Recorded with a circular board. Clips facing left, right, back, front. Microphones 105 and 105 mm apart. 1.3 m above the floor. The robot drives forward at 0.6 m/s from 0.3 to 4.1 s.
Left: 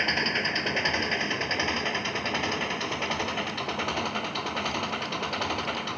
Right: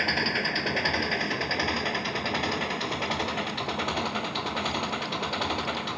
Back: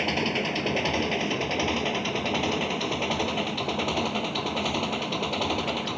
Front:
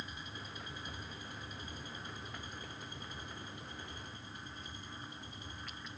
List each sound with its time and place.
0.0 s an engine running: straight behind